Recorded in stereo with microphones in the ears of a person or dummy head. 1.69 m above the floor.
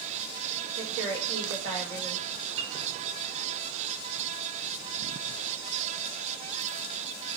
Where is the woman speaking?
65° right (ahead or behind), 6 m.